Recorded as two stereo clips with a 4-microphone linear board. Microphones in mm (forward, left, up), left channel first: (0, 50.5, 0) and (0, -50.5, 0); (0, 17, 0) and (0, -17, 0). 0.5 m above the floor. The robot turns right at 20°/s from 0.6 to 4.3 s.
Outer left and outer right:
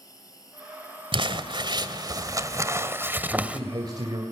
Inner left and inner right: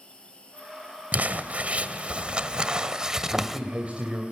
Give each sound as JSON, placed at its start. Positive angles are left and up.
{"t": 0.0, "sound": "an insect", "azimuth_deg": 145, "distance_m": 4.5}
{"t": 1.1, "sound": "crumpling", "azimuth_deg": -60, "distance_m": 1.5}
{"t": 3.3, "sound": "a man speaking", "side_deg": -35, "distance_m": 2.5}